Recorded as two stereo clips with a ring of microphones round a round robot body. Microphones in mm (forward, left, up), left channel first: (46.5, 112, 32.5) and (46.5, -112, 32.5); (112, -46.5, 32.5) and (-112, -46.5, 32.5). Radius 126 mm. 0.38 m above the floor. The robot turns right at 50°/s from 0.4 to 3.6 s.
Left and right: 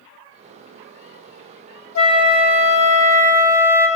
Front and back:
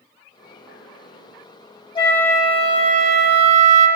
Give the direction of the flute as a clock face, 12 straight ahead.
10 o'clock.